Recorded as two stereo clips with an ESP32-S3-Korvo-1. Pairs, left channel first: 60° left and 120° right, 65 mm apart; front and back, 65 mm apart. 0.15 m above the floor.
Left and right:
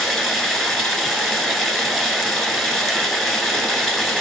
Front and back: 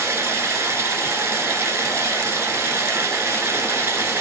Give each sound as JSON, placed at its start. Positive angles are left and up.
{"t": 0.0, "sound": "running water", "azimuth_deg": 140, "distance_m": 0.8}